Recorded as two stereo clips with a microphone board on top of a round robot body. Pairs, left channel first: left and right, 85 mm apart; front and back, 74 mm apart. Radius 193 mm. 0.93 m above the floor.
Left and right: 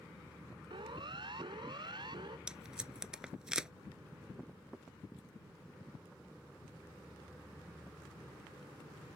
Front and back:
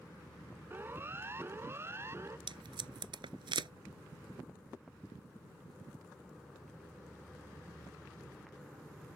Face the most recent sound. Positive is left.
turn(degrees=-170)